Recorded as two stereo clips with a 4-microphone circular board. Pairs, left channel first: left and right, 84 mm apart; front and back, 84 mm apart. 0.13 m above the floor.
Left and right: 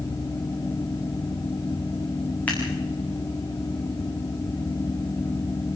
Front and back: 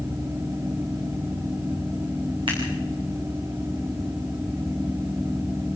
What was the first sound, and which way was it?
Scissors, 160° left.